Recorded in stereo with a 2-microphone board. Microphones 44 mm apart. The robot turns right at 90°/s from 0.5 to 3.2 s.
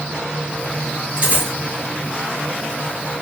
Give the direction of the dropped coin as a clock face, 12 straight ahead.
4 o'clock.